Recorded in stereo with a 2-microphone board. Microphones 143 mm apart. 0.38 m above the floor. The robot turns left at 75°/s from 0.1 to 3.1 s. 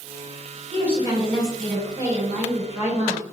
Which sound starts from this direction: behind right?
A woman speaking, at 0.7 s.